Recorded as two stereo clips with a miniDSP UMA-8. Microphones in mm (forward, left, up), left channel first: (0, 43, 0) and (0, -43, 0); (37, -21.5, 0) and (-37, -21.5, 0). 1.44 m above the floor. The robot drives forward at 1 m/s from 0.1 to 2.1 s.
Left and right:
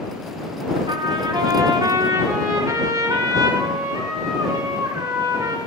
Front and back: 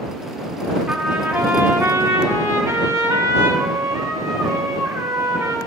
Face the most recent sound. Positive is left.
turn(degrees=-135)